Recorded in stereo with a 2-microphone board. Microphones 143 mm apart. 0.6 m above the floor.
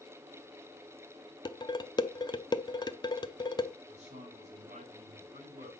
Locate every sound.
1.4 s dishes clattering: 30° left (ahead or behind), 0.6 m
3.9 s a man speaking: 55° right (ahead or behind), 4 m